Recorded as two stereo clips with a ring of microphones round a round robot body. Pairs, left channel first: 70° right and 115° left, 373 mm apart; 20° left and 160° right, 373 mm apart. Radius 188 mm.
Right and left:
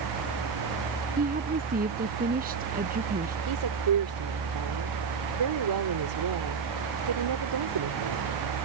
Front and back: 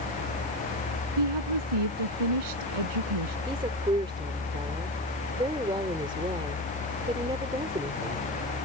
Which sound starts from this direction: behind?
A woman speaking, at 1.2 s.